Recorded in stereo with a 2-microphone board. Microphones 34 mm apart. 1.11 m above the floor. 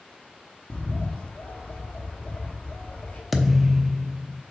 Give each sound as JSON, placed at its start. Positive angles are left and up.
{"t": 0.7, "sound": "a bird", "side_deg": 55, "distance_m": 1.6}
{"t": 3.3, "sound": "a thud", "side_deg": -5, "distance_m": 0.7}